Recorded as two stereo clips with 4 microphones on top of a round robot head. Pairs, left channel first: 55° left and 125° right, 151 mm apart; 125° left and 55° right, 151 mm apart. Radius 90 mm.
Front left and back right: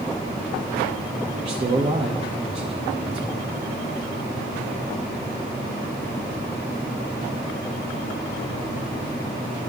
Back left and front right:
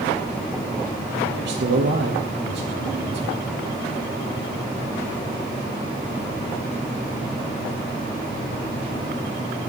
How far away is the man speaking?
About 1.1 m.